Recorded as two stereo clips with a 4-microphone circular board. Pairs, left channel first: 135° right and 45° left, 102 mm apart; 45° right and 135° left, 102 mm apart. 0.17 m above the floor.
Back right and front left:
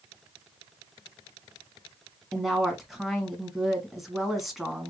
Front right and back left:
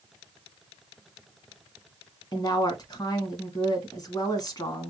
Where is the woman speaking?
45° right, 1.3 m.